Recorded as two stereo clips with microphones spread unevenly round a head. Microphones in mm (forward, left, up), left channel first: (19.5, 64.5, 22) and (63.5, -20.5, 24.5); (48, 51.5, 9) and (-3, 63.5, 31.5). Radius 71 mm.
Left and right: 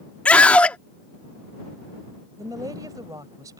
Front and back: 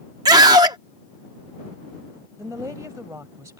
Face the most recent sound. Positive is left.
turn(degrees=-130)